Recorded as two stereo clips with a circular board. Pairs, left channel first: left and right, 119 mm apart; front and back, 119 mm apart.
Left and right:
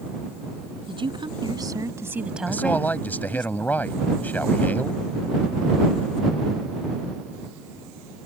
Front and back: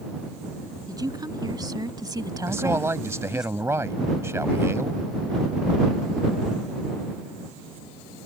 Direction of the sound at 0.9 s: 125° right.